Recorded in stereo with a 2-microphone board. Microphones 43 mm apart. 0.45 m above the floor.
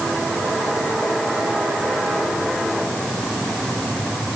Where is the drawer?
I don't hear a drawer.